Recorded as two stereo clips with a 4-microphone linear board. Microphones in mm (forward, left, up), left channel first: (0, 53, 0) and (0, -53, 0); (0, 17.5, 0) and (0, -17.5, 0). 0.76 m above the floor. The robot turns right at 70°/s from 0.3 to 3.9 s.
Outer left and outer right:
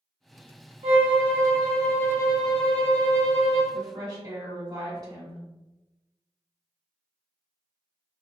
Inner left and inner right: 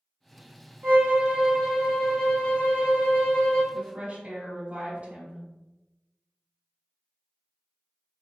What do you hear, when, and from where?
0.8 s a violin: 70° right, 0.9 m; by 3.6 s 125° left, 0.9 m
3.7 s a woman speaking: 35° right (ahead or behind), 1.8 m; by 5.4 s 45° right (ahead or behind), 1.8 m